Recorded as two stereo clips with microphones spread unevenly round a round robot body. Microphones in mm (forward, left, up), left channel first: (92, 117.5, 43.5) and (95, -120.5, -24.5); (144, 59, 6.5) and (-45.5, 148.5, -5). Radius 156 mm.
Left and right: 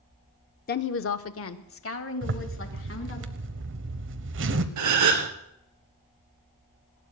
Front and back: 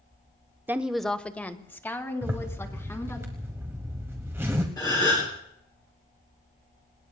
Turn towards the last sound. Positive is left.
turn(degrees=-105)